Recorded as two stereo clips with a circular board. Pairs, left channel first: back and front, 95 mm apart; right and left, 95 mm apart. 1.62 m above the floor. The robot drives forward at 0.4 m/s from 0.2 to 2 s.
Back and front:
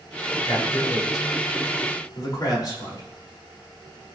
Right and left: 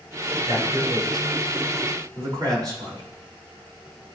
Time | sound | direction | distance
0.5 | a man speaking | 130° left | 6 m